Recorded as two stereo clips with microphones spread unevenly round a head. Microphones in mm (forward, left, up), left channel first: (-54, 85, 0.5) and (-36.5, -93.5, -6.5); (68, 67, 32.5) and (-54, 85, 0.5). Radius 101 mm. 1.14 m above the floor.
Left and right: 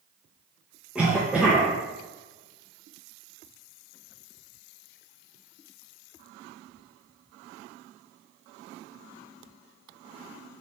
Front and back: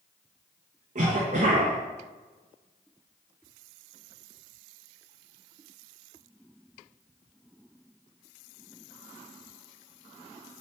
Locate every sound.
0.9 s a cough: 165° right, 1.1 m